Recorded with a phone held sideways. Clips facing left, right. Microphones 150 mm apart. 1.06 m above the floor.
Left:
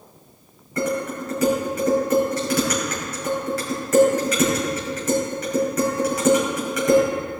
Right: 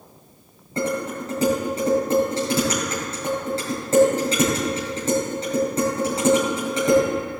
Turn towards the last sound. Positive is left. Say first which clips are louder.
# left 1 dB
turn(degrees=-30)  # may be behind; listen again after turning